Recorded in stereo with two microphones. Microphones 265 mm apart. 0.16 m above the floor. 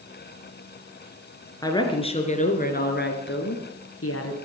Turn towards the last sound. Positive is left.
turn(degrees=60)  # may be behind; listen again after turning